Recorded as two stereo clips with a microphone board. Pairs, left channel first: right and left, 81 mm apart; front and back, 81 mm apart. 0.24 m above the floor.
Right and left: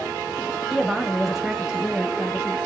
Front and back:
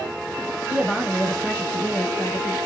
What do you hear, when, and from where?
0.7 s a woman speaking: 175° right, 1.4 m; by 2.6 s 20° left, 1.5 m